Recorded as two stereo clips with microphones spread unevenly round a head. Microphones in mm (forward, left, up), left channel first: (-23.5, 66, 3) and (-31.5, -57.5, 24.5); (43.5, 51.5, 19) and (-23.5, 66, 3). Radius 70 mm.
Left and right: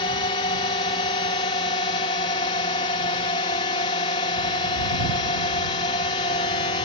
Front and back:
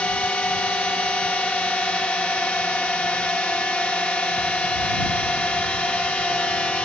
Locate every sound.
0.0 s a drone: 60° left